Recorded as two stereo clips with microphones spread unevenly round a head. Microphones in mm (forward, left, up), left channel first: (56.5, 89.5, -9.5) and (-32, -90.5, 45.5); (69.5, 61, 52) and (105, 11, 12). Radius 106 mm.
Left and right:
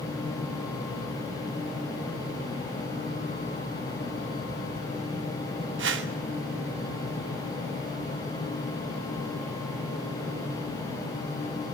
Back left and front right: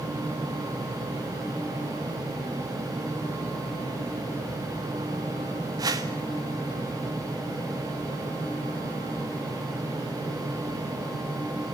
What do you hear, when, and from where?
5.8 s a whoosh: 80° right, 1.8 m